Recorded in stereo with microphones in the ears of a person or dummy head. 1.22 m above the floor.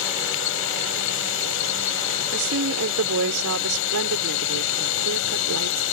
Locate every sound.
0.0 s a drone: 70° left (ahead or behind)
2.3 s a woman speaking: 80° right